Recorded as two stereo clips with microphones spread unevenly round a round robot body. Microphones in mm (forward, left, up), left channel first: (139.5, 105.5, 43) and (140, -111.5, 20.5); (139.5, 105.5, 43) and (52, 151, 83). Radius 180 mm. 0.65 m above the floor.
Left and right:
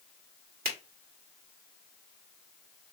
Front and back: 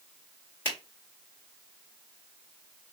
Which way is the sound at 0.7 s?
70° right.